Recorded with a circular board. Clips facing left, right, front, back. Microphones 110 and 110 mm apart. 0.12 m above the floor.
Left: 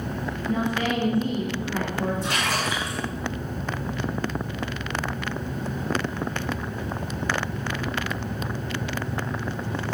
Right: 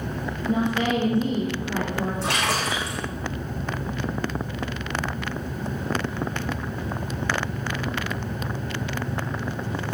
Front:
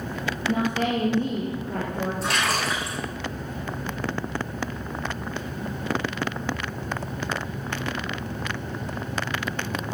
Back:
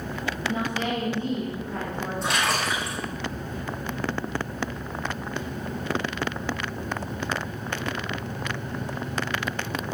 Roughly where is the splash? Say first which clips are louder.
Right 1 dB, back 2 dB; right.